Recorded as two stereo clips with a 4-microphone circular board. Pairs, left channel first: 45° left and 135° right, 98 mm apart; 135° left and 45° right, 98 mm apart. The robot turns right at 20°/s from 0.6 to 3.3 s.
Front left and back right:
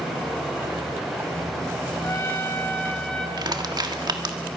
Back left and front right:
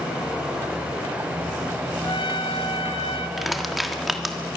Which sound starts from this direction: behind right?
Crushing, at 3.4 s.